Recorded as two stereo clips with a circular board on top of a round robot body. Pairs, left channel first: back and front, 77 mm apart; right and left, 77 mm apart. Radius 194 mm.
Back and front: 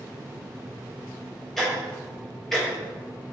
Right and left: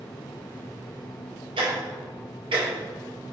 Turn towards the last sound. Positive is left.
turn(degrees=95)